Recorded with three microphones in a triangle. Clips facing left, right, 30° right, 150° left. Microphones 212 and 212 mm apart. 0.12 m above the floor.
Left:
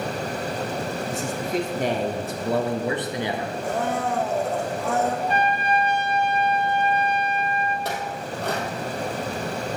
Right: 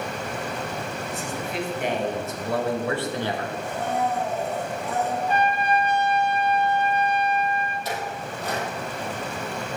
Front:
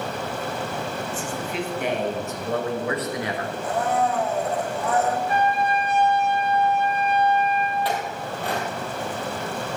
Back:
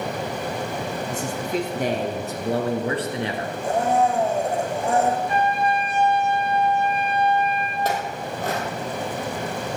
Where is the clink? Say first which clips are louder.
Left 1 dB, back 1 dB; 105° left, 2.5 m.